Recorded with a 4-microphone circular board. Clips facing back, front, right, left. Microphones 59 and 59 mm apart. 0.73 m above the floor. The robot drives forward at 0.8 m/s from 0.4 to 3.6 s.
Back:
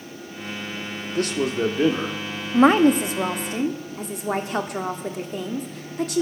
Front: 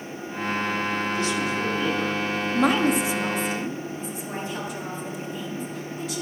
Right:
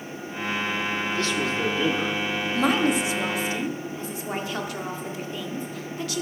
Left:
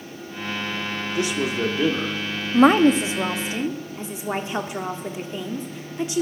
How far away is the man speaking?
About 1.4 m.